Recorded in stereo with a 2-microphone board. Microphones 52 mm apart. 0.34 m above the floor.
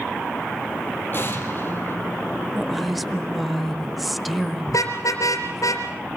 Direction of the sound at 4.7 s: 80° left.